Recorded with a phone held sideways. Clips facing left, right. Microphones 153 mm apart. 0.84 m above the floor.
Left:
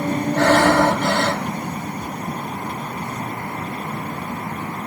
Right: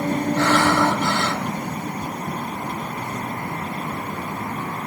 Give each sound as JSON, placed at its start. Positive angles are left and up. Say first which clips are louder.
{"t": 0.4, "sound": "breathing", "louder": "left 5 dB", "side_deg": 55, "distance_m": 1.8}